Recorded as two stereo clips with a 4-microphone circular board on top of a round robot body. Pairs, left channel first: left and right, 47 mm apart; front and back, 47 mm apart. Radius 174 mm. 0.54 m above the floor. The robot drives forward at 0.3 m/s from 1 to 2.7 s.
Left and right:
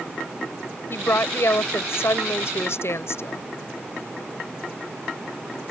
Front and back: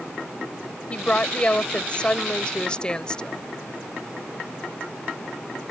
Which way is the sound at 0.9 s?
65° left.